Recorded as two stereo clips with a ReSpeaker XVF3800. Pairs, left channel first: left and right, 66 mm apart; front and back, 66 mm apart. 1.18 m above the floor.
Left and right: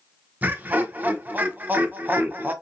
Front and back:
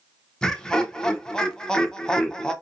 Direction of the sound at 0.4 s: 70° right.